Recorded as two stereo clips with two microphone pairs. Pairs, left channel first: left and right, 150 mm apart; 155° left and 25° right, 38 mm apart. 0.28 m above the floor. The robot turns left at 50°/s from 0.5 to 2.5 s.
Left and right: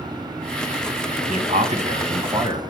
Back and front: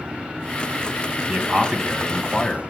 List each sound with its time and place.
1.3 s a man speaking: 80° right, 2.5 m; by 2.6 s 140° right, 2.5 m